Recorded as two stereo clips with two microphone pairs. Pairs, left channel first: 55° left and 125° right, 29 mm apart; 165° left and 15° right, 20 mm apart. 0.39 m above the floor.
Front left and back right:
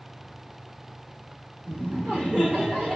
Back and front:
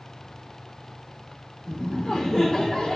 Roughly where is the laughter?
Behind right.